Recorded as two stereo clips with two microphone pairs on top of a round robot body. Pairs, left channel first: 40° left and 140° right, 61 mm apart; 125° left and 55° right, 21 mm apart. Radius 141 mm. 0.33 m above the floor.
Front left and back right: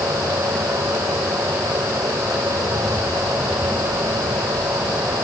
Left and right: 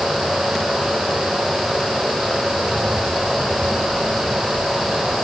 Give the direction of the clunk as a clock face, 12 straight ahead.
No clunk in this recording.